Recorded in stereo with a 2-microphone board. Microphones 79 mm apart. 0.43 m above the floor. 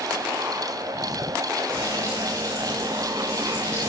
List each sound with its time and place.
1.7 s frying: 55° right (ahead or behind), 6 m